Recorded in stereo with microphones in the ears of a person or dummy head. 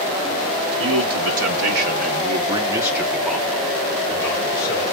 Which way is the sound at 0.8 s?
80° right.